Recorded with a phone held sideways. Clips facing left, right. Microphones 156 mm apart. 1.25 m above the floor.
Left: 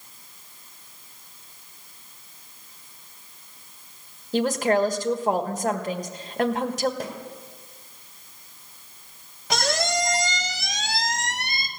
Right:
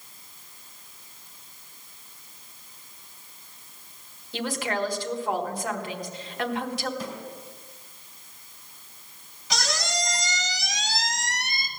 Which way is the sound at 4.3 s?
45° left (ahead or behind).